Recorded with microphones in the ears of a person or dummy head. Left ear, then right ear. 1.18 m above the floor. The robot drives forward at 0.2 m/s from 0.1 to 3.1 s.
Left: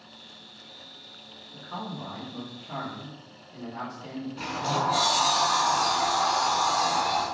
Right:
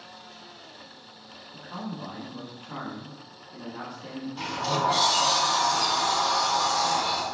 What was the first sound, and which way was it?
A man speaking, 10° left (ahead or behind).